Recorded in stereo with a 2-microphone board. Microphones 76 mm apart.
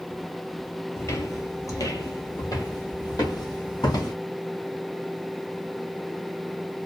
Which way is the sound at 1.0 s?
40° left (ahead or behind).